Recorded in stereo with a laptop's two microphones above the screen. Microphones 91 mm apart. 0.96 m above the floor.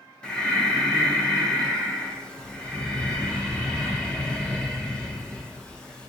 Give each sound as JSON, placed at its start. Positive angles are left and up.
{"t": 0.2, "sound": "breathing", "side_deg": 10, "distance_m": 0.6}